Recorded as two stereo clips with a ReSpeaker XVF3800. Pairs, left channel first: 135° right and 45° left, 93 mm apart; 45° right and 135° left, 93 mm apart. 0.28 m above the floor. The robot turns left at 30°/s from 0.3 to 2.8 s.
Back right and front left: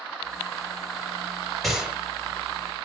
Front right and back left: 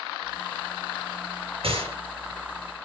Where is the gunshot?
135° left, 3 m; by 2.0 s 125° left, 3 m.